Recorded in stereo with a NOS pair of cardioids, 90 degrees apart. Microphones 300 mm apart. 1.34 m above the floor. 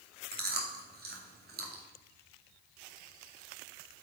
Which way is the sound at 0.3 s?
35° right.